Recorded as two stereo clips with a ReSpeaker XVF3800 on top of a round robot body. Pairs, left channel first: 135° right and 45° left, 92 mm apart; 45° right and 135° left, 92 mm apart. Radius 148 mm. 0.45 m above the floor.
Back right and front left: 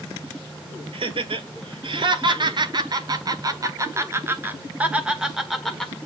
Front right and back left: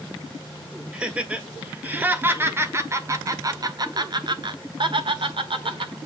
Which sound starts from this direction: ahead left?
Laughter, at 0.9 s.